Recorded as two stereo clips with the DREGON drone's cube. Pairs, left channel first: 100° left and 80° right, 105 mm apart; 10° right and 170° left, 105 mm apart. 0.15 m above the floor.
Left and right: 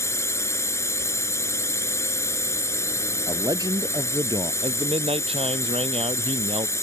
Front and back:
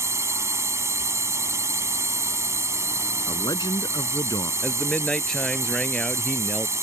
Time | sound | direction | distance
0.0 | a drone | 135° left | ?
3.3 | a man speaking | 45° right | ?
4.6 | a man speaking | 95° right | ?